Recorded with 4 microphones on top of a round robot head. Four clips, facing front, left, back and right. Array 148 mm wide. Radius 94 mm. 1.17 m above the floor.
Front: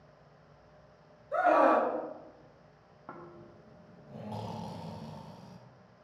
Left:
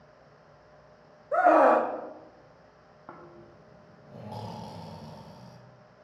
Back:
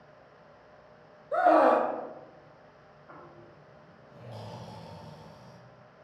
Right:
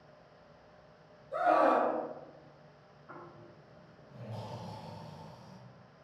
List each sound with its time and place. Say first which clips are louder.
1.3 s a scream: left 7 dB, back 3 dB; 120° left, 0.7 m
3.1 s snoring: left 3 dB, front 2 dB; 50° left, 0.8 m